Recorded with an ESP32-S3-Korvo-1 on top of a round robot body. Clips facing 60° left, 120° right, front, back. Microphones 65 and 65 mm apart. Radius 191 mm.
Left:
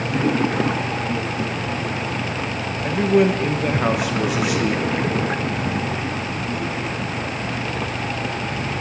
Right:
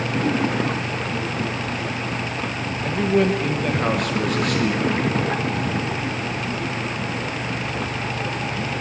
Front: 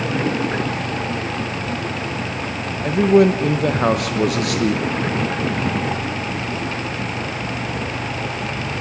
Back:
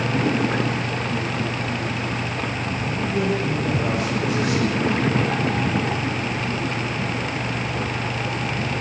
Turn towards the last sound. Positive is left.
turn(degrees=-25)